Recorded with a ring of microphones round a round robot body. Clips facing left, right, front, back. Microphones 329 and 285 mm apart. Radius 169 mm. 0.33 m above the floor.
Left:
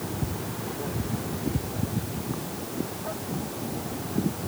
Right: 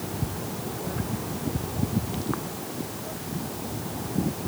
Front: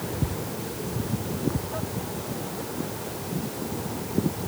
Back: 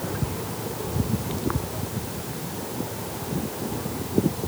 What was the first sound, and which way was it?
Only background noise.